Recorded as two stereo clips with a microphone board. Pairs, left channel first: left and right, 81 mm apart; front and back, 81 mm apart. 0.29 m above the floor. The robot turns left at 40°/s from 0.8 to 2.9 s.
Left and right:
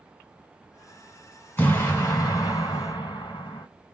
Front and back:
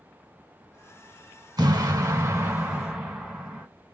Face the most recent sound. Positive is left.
turn(degrees=100)